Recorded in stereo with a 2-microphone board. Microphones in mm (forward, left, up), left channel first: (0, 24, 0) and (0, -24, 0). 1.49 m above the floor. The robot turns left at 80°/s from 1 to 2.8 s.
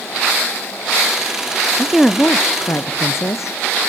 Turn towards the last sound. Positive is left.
turn(degrees=115)